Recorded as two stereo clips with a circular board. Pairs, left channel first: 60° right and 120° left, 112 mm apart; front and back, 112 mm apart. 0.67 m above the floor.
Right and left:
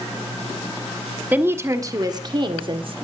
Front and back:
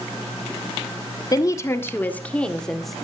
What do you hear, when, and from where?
1.3 s a woman speaking: 50° left, 1.2 m; by 3.0 s 90° left, 1.7 m